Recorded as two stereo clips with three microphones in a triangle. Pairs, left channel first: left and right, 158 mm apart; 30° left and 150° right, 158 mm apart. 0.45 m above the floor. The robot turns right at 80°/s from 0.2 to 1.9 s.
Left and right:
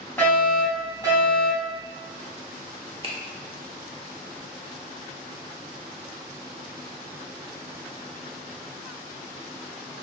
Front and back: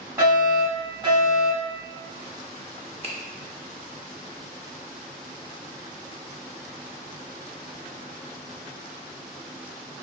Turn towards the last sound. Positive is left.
turn(degrees=-125)